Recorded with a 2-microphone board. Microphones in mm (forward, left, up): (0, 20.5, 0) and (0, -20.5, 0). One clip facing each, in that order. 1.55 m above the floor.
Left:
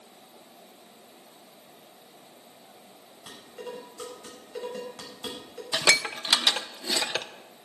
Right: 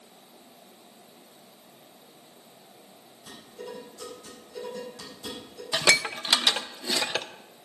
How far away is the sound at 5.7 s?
About 0.5 m.